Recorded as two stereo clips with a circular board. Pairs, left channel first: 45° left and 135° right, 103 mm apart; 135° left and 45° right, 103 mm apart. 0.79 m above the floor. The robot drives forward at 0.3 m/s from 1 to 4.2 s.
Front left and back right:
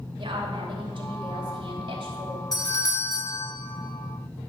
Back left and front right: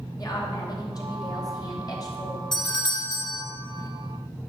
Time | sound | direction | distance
0.2 | a woman speaking | 175° right | 2.5 m
2.5 | a doorbell | 90° left | 1.7 m